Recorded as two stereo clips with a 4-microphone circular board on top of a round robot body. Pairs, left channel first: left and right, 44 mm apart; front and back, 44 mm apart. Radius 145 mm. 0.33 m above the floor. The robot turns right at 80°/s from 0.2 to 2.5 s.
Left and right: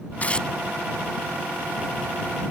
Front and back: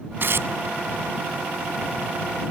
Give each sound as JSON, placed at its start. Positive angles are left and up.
{"t": 0.2, "sound": "tearing paper", "azimuth_deg": 145}